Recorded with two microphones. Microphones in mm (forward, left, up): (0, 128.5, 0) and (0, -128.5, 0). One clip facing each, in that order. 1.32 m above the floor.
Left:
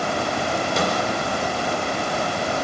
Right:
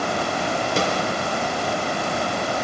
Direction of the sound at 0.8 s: 35° right (ahead or behind).